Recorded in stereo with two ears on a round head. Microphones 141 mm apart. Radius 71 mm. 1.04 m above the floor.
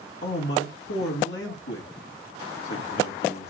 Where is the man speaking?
80° left, 1.9 m.